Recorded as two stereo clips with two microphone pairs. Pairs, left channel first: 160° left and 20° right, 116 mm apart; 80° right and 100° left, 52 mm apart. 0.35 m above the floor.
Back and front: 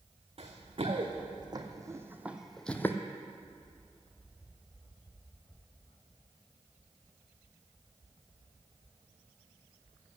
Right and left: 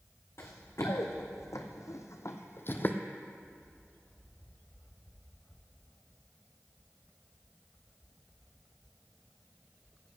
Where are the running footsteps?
55° right, 1.6 m; by 3.0 s 130° right, 0.7 m.